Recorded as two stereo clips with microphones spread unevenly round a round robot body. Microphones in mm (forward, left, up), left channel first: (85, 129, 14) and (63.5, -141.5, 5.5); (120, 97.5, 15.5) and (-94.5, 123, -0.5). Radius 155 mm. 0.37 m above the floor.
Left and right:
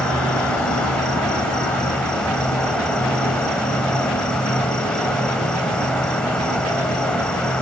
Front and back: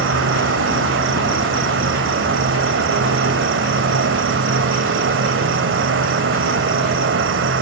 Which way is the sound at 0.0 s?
175° left.